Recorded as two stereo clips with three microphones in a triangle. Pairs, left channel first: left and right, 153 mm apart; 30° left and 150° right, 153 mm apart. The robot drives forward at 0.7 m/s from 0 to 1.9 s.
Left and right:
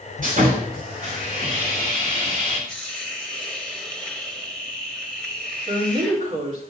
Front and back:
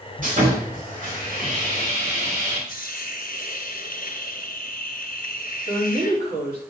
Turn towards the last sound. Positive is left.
turn(degrees=-135)